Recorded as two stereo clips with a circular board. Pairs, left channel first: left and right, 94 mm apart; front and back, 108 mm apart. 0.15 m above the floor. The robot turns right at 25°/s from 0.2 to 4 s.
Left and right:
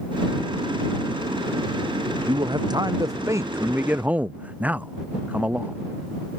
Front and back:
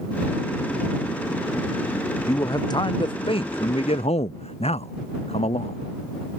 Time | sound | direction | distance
2.3 | a man speaking | 60° right | ?